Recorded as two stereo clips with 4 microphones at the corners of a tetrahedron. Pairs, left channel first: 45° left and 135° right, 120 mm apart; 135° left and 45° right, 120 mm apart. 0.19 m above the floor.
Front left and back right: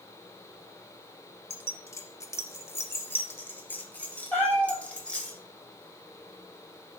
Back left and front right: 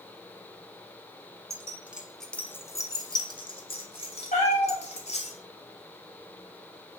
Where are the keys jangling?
10° right, 0.8 m; by 5.3 s 125° left, 2 m.